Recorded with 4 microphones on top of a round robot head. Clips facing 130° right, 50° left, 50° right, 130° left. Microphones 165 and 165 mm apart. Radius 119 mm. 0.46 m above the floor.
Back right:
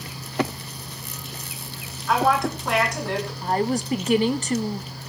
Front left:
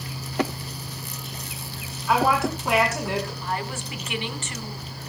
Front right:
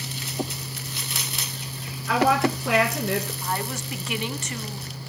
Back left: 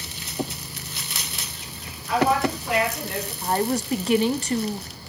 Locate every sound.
2.1 s a woman speaking: 35° right, 7 m
3.4 s a woman speaking: straight behind, 1.4 m